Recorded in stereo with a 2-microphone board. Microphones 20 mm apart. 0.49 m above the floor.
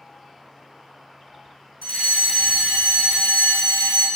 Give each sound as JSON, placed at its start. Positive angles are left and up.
{"t": 1.8, "sound": "a fire alarm", "side_deg": 65, "distance_m": 5.0}